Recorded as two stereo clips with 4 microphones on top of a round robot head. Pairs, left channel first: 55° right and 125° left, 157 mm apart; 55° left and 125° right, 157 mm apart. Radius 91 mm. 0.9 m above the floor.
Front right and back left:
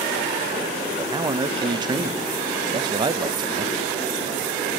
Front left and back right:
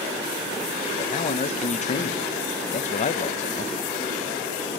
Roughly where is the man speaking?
Left.